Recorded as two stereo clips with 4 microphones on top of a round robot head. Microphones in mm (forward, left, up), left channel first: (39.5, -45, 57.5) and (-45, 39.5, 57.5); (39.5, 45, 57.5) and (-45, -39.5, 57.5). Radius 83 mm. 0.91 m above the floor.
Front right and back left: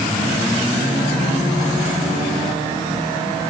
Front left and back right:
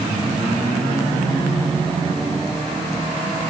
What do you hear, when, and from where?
Only background noise.